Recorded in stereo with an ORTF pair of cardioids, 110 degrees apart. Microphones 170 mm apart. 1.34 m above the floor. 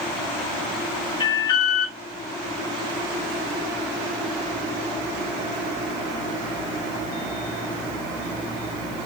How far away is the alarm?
About 1.2 m.